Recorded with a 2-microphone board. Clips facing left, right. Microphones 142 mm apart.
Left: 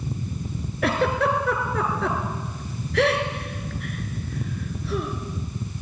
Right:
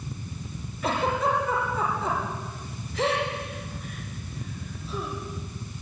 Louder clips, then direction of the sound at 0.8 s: Left 3 dB; 75° left (ahead or behind).